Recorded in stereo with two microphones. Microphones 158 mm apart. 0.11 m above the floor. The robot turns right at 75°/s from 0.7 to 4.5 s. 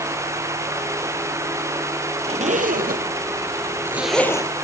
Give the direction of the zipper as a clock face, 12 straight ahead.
5 o'clock.